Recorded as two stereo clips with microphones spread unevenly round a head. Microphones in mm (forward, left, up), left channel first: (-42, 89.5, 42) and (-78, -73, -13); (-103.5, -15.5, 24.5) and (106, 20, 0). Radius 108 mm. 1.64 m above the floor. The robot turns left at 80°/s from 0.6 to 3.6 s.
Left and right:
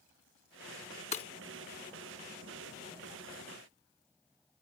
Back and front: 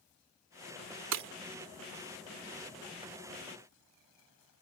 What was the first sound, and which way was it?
Breaking glass, 25° left.